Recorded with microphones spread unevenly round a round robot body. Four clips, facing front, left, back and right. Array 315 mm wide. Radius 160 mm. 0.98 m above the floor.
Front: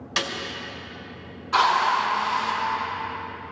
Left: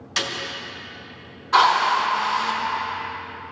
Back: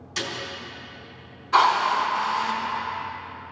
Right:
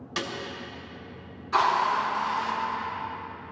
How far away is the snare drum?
About 2 m.